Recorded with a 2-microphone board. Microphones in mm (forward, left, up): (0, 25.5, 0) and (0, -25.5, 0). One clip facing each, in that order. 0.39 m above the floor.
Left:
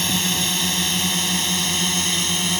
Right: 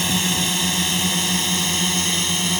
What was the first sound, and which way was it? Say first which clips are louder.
A drone: right 1 dB; 5° right (ahead or behind).